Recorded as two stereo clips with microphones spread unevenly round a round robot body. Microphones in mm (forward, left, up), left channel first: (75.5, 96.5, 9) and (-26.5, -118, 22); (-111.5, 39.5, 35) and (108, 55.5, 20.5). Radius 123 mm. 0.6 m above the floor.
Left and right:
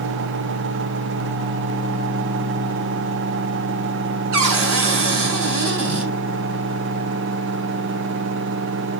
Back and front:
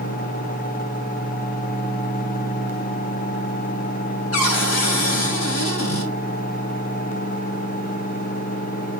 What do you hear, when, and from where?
4.3 s a cupboard door: 155° right, 4.5 m